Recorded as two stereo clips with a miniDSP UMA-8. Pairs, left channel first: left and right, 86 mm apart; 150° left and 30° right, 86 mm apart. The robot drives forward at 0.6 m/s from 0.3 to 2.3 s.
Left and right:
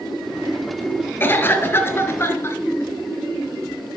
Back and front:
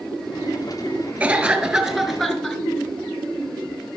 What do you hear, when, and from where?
1.2 s a cough: 40° left, 1.8 m; by 2.6 s 70° left, 1.6 m